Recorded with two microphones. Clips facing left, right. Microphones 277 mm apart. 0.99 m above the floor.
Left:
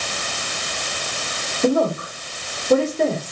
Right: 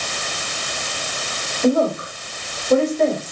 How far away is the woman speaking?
About 2.5 m.